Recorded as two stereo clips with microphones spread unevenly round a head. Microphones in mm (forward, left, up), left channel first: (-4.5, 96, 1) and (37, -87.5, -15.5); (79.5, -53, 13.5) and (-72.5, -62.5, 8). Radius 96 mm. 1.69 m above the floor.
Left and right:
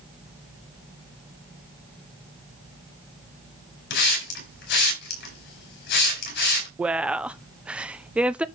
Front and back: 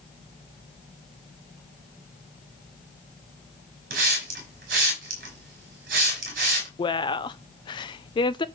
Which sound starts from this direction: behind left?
A hiss, at 3.9 s.